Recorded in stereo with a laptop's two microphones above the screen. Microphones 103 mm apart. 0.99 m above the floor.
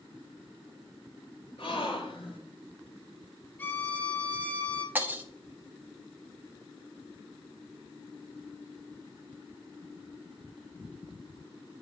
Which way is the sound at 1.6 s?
60° left (ahead or behind).